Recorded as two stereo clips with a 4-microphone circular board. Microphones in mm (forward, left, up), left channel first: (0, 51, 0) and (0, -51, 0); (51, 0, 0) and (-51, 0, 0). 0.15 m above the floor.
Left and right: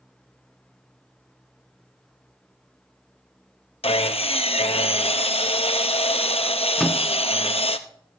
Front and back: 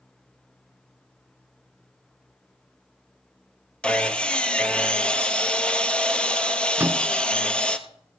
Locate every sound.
3.8 s sawing: 80° left, 0.8 m
6.8 s a microwave: 160° left, 0.8 m